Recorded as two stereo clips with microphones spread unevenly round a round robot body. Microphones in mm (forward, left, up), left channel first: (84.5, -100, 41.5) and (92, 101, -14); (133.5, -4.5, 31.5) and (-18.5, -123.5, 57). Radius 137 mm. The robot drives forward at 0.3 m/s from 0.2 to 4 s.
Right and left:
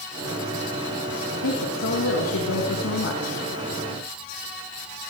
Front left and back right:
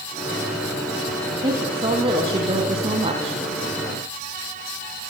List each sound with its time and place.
1.3 s a woman speaking: 75° right, 4 m; by 3.4 s 85° right, 4 m